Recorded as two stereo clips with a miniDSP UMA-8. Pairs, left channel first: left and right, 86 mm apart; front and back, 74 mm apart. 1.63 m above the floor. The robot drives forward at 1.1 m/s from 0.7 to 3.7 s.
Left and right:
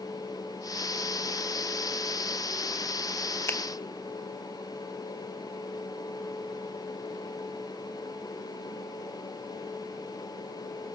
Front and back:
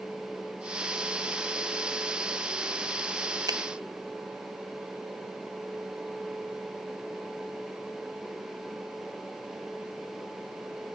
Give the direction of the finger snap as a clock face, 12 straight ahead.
7 o'clock.